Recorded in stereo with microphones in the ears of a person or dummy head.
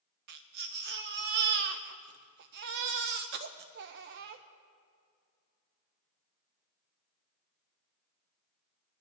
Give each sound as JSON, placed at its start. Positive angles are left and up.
{"t": 0.3, "sound": "a baby crying", "side_deg": -55, "distance_m": 0.7}